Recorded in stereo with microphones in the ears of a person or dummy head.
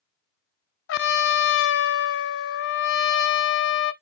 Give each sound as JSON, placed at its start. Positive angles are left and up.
{"t": 0.9, "sound": "a trumpet", "side_deg": 75, "distance_m": 0.5}